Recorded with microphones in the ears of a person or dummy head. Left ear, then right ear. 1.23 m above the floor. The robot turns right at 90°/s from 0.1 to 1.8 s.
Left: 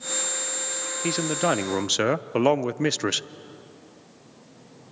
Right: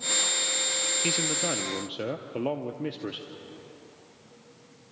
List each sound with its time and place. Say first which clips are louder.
1.0 s a man speaking: left 4 dB; straight ahead, 0.6 m; by 3.3 s 70° left, 0.6 m